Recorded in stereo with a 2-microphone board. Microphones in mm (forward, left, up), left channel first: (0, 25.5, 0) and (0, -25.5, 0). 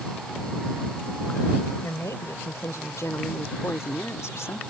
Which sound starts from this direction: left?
A woman speaking, at 1.8 s.